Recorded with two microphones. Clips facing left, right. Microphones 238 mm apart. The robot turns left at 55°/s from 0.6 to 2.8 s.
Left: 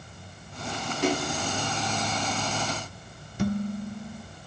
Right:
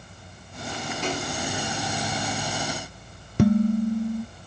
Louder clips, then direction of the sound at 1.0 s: Left 5 dB; 65° left (ahead or behind).